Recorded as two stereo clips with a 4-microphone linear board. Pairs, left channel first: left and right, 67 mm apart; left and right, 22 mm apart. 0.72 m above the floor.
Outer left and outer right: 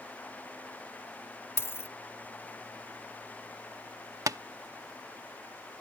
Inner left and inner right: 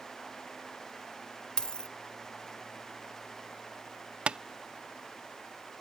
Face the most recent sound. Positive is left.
turn(degrees=-55)  # may be behind; listen again after turning